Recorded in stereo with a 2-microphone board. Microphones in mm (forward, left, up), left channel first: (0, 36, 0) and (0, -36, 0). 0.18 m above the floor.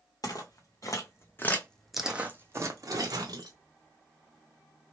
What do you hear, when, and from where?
0.2 s footsteps: 60° left (ahead or behind), 1.0 m; by 3.6 s 65° right (ahead or behind), 1.0 m